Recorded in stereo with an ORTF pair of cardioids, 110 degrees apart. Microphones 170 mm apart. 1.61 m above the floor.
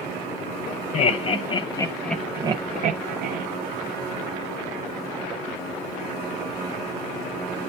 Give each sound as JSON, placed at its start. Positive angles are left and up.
{"t": 0.9, "sound": "laughter", "azimuth_deg": 40, "distance_m": 1.2}